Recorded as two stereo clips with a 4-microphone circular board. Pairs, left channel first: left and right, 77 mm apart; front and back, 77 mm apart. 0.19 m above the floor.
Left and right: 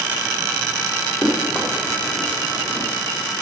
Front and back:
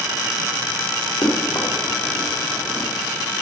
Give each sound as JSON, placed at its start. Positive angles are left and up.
{"t": 1.2, "sound": "running footsteps", "azimuth_deg": 5, "distance_m": 4.0}